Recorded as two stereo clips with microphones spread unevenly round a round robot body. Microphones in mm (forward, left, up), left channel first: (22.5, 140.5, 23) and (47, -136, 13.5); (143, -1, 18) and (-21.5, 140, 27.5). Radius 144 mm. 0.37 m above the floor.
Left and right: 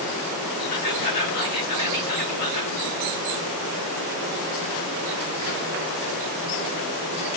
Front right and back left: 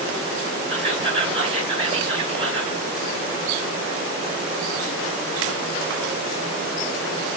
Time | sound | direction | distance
0.7 | whispering | 80° left | 6 m